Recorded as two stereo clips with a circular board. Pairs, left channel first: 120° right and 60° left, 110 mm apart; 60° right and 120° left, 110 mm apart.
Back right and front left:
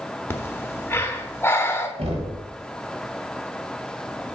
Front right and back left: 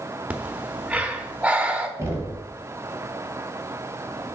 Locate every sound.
0.3 s breathing: 170° right, 0.8 m
2.0 s knocking: 55° left, 1.8 m